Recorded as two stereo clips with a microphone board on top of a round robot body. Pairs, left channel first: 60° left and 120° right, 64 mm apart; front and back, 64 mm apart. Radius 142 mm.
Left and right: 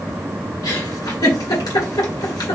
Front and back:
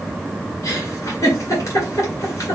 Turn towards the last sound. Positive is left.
turn(degrees=45)